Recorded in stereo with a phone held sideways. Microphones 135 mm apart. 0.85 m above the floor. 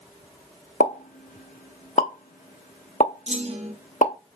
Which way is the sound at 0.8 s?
70° left (ahead or behind).